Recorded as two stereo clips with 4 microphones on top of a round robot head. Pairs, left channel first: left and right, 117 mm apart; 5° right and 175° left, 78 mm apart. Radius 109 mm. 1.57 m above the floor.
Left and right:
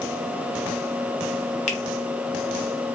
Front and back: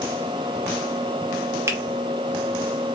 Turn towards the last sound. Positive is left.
turn(degrees=120)